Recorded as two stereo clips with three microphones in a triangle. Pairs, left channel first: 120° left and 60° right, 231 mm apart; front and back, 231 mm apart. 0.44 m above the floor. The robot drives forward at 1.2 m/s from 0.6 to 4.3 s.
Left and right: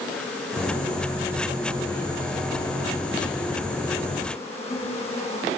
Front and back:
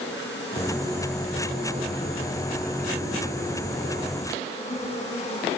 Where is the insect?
35° left, 10 m; by 5.6 s 60° left, 7 m.